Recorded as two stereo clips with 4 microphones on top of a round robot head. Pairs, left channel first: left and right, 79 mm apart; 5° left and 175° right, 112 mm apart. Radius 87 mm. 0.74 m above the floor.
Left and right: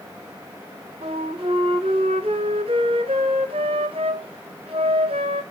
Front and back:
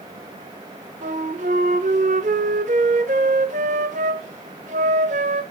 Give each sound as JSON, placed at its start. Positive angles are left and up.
{"t": 1.0, "sound": "a flute", "azimuth_deg": -135, "distance_m": 0.6}